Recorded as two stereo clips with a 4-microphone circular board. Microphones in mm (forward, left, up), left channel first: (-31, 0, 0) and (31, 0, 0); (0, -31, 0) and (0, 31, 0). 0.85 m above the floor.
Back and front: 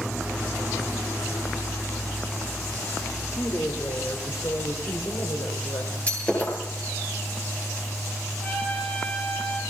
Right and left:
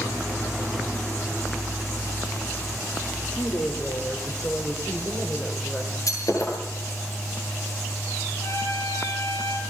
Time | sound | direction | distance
3.2 | a woman speaking | 145° right | 3 m
6.1 | breaking glass | 115° right | 9.5 m
8.4 | a trumpet | 120° right | 8 m